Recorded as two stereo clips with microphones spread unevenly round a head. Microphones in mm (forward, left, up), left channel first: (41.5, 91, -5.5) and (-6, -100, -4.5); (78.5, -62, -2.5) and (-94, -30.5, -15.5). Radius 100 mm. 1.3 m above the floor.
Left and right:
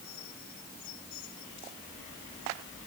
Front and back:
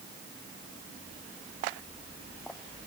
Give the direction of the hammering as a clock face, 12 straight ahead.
I don't hear hammering.